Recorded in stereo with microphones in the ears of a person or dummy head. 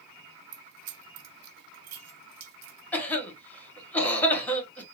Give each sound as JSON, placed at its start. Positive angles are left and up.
{"t": 0.5, "sound": "keys jangling", "side_deg": -50, "distance_m": 0.5}
{"t": 2.9, "sound": "a cough", "side_deg": 10, "distance_m": 1.1}